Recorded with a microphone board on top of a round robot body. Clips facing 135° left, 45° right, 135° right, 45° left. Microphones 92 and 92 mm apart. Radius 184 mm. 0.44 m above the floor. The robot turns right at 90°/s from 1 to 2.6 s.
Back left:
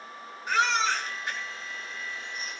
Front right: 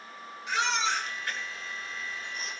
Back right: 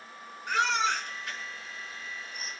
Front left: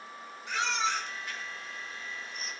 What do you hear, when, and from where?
0.5 s a baby crying: 175° right, 5.5 m; by 2.5 s 40° right, 5.5 m